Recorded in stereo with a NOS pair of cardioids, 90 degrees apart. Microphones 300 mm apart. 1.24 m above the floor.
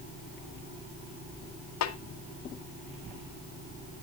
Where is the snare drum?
65° left, 1.4 m.